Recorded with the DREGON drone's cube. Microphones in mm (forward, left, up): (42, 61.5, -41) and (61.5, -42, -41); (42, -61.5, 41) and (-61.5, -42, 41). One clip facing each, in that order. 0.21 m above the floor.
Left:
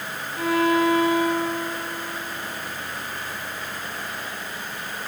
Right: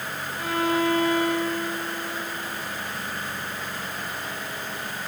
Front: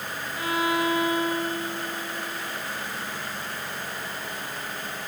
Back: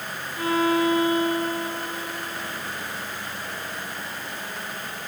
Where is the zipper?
I don't hear a zipper.